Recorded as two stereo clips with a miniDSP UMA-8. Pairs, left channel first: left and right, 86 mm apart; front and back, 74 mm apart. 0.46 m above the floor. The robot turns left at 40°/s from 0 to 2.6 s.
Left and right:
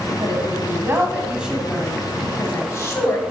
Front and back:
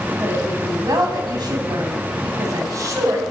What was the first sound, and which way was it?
A woman speaking, 120° right.